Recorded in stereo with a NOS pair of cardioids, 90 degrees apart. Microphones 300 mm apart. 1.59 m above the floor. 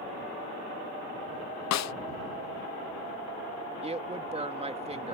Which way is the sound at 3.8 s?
20° right.